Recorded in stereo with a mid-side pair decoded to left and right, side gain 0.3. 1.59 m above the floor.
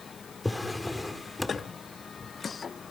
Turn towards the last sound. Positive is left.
turn(degrees=15)